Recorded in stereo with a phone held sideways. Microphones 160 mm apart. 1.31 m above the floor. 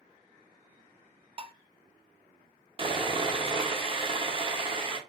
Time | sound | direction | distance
1.4 | dishes clattering | 35° right (ahead or behind) | 0.6 m
2.8 | sawing | 35° right (ahead or behind) | 1.0 m